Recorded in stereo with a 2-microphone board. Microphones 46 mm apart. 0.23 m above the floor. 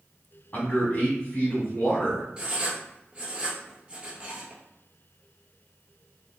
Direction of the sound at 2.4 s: 25° right (ahead or behind).